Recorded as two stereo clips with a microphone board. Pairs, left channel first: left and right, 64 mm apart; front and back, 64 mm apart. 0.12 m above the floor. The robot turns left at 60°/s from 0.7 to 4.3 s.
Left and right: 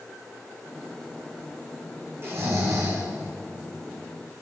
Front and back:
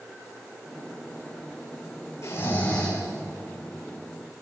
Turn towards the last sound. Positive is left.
turn(degrees=-165)